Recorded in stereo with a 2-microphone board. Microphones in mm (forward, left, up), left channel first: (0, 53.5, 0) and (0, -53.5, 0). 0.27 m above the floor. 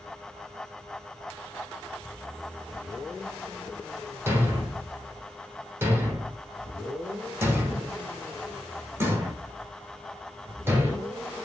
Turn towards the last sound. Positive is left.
turn(degrees=-20)  # may be behind; listen again after turning